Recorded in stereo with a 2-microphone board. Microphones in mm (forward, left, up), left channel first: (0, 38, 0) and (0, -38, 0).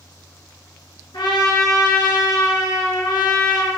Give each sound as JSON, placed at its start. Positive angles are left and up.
{"t": 1.1, "sound": "a trumpet", "side_deg": 80, "distance_m": 4.0}